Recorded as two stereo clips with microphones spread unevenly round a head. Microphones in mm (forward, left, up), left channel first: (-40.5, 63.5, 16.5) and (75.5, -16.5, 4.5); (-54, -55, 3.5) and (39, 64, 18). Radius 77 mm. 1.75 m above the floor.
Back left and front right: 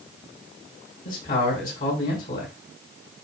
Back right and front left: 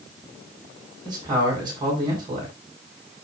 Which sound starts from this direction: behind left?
A man speaking, at 1.1 s.